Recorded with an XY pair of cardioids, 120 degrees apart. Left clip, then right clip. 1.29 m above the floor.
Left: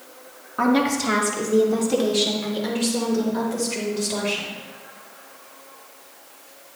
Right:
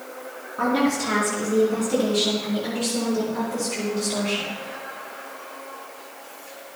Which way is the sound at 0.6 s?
35° left.